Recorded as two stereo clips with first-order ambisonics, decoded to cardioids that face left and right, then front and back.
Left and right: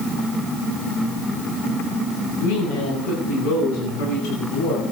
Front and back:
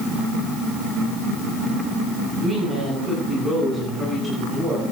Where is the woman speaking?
105° left, 9 m; by 4.8 s 90° left, 10 m.